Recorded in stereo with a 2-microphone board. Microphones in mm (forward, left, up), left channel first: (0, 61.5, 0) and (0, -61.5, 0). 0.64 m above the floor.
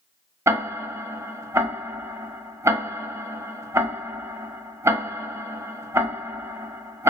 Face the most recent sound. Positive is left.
turn(degrees=-20)  # may be behind; listen again after turning